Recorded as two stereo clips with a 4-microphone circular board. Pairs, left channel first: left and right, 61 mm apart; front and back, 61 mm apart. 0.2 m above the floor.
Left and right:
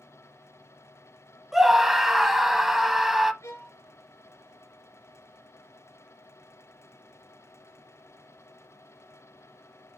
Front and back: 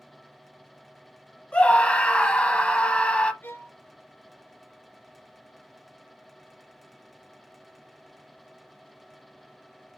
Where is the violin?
50° left, 2.5 m.